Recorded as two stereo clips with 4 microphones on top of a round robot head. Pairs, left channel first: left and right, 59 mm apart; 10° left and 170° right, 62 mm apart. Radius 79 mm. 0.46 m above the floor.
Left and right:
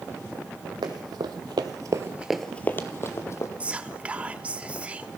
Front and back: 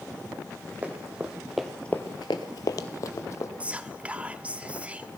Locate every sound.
0.8 s running footsteps: 100° right, 1.6 m; by 3.5 s 50° left, 1.5 m
3.6 s whispering: 130° right, 0.9 m